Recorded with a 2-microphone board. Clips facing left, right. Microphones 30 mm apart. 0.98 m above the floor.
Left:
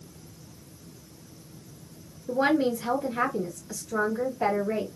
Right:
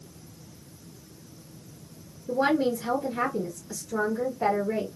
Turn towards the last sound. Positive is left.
turn(degrees=40)  # may be behind; listen again after turning